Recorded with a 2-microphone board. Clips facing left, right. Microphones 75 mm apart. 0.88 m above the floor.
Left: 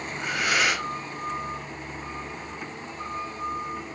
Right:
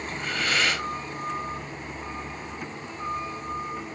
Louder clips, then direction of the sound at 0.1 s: Left 2 dB; 15° left (ahead or behind).